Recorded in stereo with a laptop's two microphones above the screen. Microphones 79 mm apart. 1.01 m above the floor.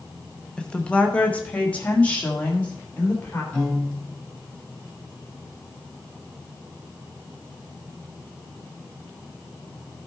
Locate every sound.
0.6 s a woman speaking: 10° left (ahead or behind), 0.7 m; by 3.4 s 20° left (ahead or behind), 2.5 m
3.5 s a piano: 15° left (ahead or behind), 4 m